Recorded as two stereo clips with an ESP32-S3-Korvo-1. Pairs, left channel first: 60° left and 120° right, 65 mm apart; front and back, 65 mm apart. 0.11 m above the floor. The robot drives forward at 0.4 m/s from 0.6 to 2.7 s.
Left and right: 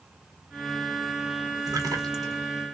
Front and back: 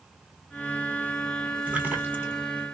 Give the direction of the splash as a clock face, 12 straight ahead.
4 o'clock.